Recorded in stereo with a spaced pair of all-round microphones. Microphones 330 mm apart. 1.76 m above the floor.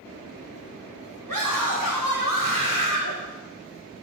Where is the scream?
75° right (ahead or behind), 3.5 m.